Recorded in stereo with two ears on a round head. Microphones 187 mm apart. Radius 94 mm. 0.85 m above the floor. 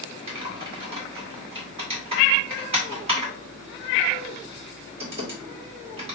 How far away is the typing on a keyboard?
About 1.9 m.